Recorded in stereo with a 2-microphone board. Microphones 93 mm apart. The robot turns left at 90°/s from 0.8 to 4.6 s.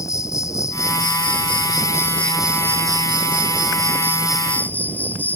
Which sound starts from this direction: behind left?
An insect, at 0.0 s.